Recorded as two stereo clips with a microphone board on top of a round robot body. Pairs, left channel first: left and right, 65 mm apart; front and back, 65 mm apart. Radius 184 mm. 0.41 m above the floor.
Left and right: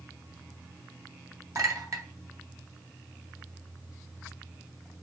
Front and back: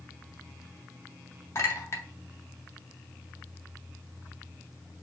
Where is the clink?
50° right, 1.7 m.